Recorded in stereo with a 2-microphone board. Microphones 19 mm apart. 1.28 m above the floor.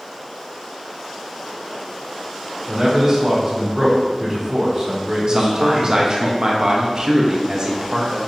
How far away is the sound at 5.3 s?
About 0.7 m.